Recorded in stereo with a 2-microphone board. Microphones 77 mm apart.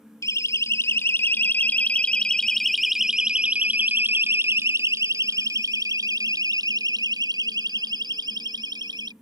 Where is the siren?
45° left (ahead or behind); by 9.1 s 70° right (ahead or behind).